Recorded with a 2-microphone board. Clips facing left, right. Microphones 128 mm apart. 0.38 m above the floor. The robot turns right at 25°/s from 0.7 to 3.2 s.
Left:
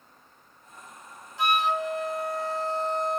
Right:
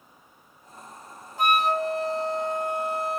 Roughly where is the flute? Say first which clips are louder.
Right 2 dB; ahead right.